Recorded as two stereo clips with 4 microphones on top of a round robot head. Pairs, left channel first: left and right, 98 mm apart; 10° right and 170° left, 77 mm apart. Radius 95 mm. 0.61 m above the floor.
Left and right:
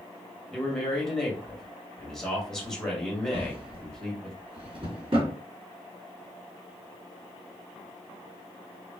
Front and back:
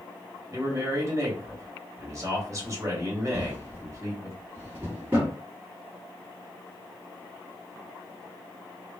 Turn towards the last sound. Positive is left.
turn(degrees=-125)